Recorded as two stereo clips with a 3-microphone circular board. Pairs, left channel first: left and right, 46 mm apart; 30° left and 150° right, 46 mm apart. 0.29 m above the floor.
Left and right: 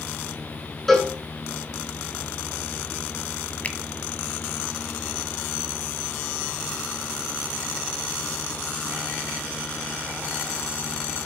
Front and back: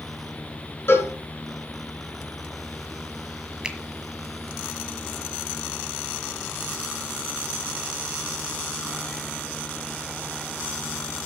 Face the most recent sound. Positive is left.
turn(degrees=140)